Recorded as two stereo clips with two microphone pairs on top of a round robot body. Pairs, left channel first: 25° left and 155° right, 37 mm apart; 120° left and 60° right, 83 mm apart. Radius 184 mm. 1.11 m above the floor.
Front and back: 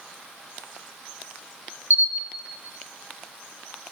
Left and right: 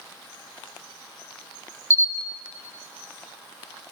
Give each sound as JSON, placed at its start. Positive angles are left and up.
{"t": 1.9, "sound": "a camera shutter", "azimuth_deg": -120, "distance_m": 0.9}